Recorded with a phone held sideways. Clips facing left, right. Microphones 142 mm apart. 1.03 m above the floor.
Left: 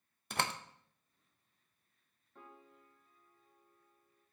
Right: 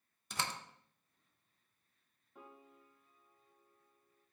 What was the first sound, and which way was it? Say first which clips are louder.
A door slam: left 4 dB; 60° left (ahead or behind).